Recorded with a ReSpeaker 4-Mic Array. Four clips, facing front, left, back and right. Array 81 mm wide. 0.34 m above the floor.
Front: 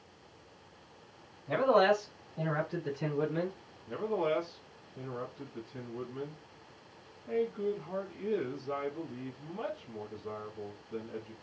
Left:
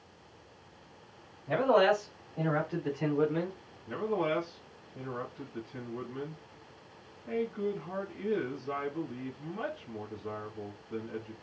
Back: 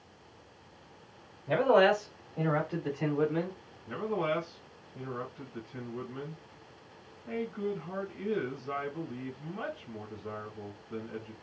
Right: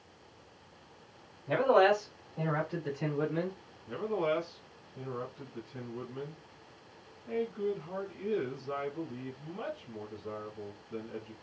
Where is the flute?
I don't hear a flute.